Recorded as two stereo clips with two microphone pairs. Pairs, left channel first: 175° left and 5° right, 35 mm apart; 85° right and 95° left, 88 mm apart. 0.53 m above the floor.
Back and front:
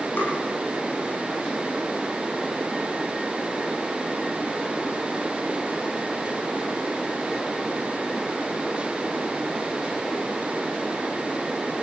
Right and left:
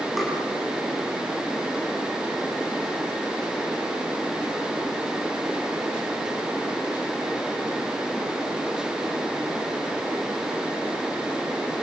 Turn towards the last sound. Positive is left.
turn(degrees=-170)